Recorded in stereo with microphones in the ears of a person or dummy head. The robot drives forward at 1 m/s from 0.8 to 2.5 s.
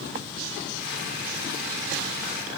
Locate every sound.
Only background noise.